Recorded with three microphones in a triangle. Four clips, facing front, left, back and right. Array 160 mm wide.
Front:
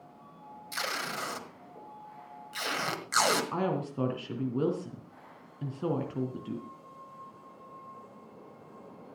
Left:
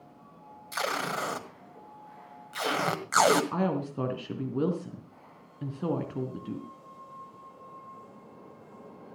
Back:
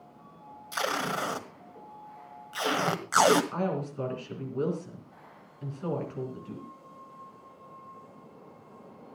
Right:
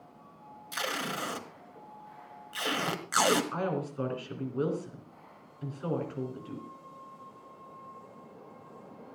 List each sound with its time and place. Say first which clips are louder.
0.7 s tape being pulled: left 4 dB, back 6 dB; 140° left, 1.6 m
3.5 s a woman speaking: left 3 dB, even; 55° left, 3 m